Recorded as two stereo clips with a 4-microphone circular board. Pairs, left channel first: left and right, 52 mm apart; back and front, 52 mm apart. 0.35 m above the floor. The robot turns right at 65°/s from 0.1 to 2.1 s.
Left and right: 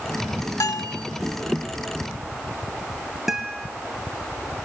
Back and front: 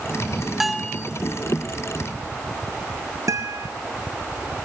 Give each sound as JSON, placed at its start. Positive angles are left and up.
{"t": 0.6, "sound": "a bell", "azimuth_deg": 85, "distance_m": 0.7}
{"t": 3.3, "sound": "a guitar", "azimuth_deg": -5, "distance_m": 1.8}